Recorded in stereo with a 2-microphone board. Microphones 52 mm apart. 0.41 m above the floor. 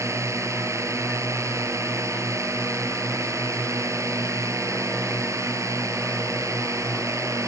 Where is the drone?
70° right (ahead or behind); by 7.5 s 80° right.